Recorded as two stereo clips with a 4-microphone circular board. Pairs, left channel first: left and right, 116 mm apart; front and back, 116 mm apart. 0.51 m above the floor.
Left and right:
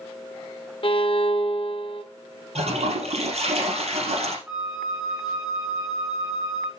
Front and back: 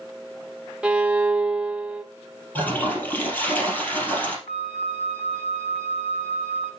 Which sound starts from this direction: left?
A violin, at 0.8 s.